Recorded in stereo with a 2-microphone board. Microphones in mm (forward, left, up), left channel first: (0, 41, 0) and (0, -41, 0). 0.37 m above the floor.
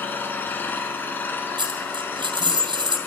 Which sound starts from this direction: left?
An engine running, at 0.0 s.